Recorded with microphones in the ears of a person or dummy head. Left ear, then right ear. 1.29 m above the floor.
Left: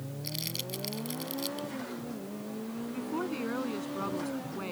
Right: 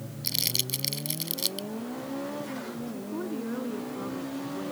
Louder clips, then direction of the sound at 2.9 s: Left 2 dB; 75° left (ahead or behind).